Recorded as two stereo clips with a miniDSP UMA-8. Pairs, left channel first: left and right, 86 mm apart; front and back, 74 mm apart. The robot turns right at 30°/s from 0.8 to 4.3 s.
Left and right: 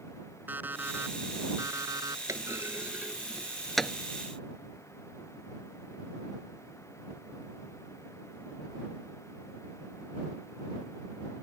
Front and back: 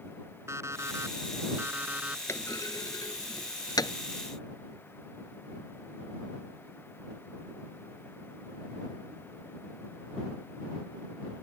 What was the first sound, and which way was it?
An alarm clock, 150° right.